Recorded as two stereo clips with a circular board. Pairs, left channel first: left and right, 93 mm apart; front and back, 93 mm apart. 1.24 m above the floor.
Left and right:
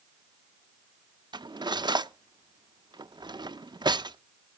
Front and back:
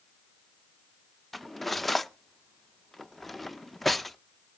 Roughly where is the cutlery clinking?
Right.